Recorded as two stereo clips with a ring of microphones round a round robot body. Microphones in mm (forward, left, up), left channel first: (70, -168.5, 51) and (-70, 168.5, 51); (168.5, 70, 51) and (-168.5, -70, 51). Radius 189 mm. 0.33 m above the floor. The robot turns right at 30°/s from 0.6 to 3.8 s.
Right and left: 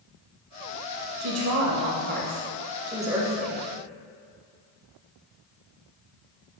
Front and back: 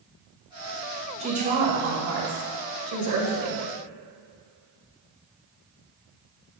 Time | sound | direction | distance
1.2 | a woman speaking | 135° left | 2 m